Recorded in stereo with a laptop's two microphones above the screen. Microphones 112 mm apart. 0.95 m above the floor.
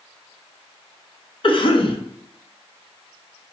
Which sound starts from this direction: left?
A cough, at 1.4 s.